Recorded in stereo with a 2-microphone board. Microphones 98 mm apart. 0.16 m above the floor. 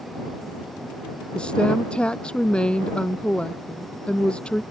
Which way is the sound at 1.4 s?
10° left (ahead or behind).